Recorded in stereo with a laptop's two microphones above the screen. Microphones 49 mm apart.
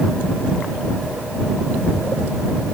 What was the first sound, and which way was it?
Only background noise.